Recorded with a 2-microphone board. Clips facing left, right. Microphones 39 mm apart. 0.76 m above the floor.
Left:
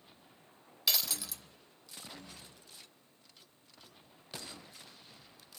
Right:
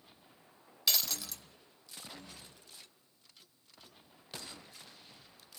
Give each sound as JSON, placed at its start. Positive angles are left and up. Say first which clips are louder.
{"t": 0.9, "sound": "breaking glass", "louder": "even", "side_deg": 5, "distance_m": 0.6}